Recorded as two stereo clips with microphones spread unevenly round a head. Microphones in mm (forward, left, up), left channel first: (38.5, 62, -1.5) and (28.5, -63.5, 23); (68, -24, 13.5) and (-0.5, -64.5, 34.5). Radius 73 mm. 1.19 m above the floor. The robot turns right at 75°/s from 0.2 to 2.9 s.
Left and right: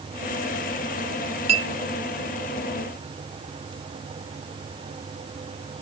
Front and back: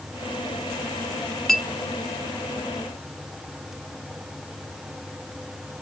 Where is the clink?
55° right, 1.0 m; by 1.7 s 40° right, 1.0 m.